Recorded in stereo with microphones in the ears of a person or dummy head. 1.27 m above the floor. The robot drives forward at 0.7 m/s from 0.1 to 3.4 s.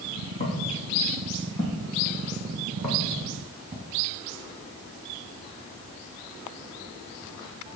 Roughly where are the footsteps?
Left.